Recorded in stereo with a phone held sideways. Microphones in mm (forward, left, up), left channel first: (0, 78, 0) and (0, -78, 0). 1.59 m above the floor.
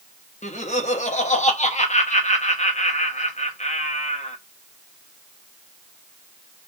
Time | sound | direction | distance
0.4 | laughter | 50° left (ahead or behind) | 1.4 m